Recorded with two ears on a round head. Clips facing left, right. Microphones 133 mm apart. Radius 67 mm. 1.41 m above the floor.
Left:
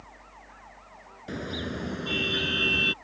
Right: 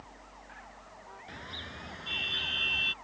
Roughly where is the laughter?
No laughter in this recording.